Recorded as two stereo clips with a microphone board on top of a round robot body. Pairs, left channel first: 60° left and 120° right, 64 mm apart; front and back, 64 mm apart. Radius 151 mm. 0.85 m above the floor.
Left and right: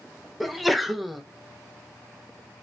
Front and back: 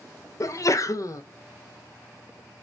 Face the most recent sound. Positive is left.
turn(degrees=-30)